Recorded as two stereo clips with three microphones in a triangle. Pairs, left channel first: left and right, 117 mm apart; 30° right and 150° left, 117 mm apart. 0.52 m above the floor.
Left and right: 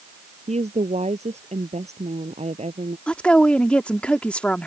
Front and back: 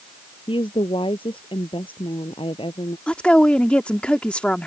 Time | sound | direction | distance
0.5 | a woman speaking | 75° right | ?
3.1 | a woman speaking | 30° left | ?